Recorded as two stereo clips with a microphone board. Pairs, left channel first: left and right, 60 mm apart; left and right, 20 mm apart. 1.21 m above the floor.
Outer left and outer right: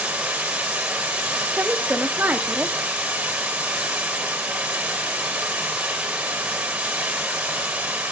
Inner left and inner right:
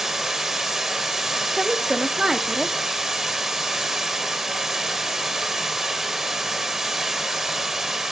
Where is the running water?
20° right (ahead or behind), 1.3 m.